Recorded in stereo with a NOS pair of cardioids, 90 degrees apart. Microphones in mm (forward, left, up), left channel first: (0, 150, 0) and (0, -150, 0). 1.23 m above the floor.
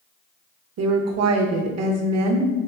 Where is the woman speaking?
55° right, 1.0 m.